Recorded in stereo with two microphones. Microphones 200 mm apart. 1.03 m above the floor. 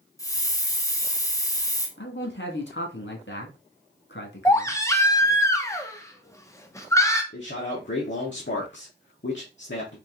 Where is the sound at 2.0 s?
70° left (ahead or behind), 1.5 m.